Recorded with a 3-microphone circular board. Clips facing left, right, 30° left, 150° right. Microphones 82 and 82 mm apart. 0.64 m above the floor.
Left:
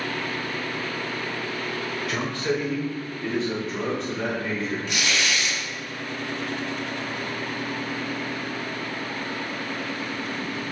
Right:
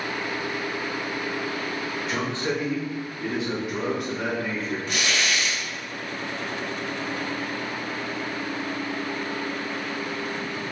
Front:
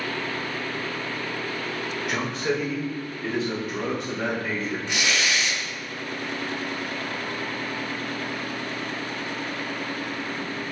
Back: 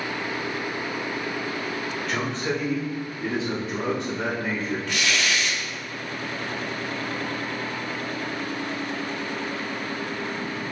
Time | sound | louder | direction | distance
2.1 | a man speaking | left 1 dB, front 1 dB | 40° right | 1.2 m
4.9 | tearing paper | right 2 dB, front 1 dB | 40° right | 0.9 m